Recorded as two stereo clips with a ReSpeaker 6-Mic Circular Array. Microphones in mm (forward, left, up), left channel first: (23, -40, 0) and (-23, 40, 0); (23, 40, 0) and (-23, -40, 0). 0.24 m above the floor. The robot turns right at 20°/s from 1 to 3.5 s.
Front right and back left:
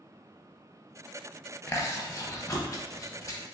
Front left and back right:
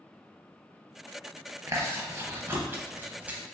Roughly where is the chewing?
Right.